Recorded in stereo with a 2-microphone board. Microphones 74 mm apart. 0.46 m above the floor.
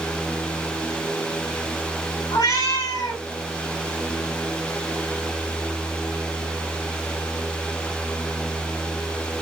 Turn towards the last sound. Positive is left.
turn(degrees=60)  # may be behind; listen again after turning